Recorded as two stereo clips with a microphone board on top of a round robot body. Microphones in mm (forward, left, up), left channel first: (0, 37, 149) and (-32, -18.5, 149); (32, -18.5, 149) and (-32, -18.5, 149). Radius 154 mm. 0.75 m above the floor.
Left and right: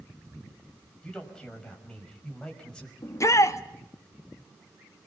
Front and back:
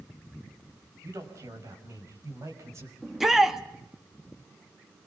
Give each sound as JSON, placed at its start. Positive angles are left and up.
{"t": 1.0, "sound": "a man speaking", "azimuth_deg": 140, "distance_m": 5.0}
{"t": 3.0, "sound": "a shout", "azimuth_deg": 95, "distance_m": 1.6}